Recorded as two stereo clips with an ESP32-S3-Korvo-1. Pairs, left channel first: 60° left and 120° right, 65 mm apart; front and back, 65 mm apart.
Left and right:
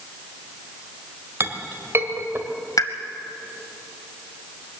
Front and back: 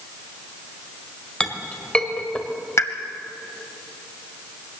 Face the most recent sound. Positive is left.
turn(degrees=45)